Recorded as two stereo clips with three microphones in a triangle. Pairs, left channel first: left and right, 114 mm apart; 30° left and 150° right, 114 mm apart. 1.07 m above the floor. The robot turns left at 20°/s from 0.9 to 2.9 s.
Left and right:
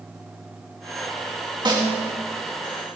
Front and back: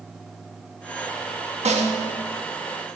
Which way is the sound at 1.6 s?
140° right.